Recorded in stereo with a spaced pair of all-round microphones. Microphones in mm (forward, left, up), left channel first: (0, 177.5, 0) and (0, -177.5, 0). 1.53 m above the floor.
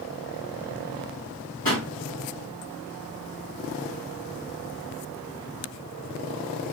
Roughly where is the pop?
Left.